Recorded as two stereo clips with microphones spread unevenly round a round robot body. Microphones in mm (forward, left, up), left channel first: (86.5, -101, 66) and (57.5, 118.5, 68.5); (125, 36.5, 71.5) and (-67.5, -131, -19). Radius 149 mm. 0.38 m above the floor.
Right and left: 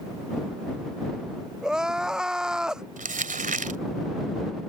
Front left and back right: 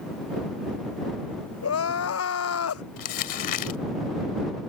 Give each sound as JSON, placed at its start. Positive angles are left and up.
{"t": 1.6, "sound": "crying", "azimuth_deg": 10}
{"t": 3.0, "sound": "crumpling", "azimuth_deg": 45}